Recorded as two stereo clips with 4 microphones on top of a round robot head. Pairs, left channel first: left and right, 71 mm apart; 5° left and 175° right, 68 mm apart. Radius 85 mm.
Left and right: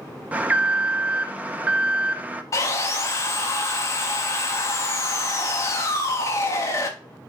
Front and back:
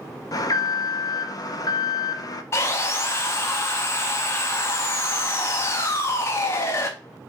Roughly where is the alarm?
Ahead.